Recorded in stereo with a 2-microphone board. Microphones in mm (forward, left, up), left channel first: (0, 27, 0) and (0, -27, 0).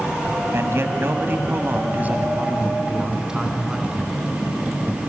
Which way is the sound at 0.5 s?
55° right (ahead or behind).